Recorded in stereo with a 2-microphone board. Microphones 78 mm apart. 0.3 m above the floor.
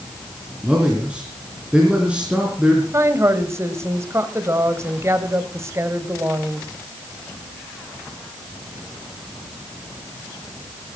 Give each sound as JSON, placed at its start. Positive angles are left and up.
{"t": 0.6, "sound": "a man speaking", "side_deg": -15, "distance_m": 3.5}
{"t": 2.9, "sound": "a woman speaking", "side_deg": -35, "distance_m": 1.8}